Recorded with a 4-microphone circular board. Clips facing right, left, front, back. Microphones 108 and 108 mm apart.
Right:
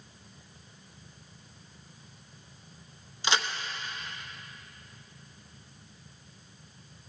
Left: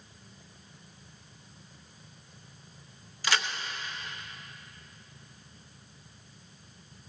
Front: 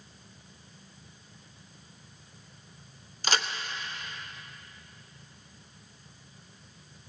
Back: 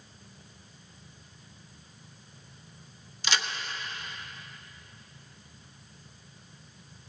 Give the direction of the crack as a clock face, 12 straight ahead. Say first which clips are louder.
Right 1 dB, front 2 dB; 1 o'clock.